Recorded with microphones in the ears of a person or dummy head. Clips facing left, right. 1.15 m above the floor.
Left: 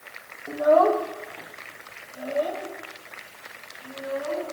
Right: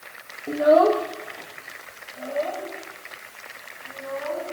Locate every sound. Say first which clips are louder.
0.5 s a child speaking: right 2 dB; 45° right (ahead or behind), 1.4 m; by 4.4 s 35° left (ahead or behind), 5.5 m